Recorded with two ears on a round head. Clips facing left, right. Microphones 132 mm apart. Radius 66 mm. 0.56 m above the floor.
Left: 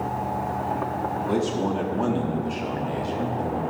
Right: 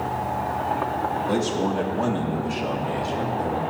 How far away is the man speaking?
About 1.3 m.